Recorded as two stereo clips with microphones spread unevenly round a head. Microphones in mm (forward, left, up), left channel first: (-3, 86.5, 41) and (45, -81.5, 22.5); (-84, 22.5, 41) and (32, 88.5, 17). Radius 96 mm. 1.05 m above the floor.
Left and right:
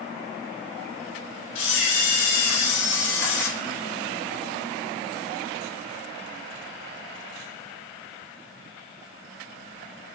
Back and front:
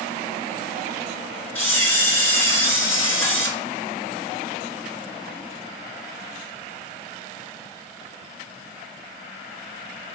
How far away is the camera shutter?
About 1.9 m.